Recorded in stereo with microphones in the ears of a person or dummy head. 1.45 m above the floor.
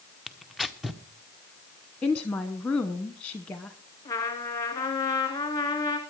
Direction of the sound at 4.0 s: 20° left (ahead or behind).